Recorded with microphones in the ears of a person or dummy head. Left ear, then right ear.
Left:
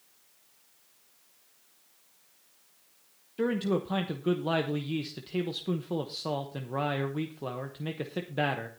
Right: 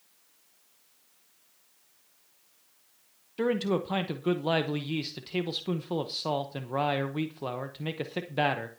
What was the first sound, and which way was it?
A man speaking, 25° right (ahead or behind).